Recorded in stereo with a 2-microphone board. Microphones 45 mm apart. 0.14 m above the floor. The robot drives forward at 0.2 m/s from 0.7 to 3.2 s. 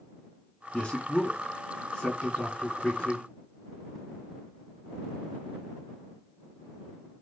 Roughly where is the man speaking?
Left.